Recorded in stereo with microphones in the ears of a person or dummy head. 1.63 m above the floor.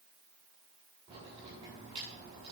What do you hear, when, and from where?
1.1 s a crack: 30° right (ahead or behind), 7.5 m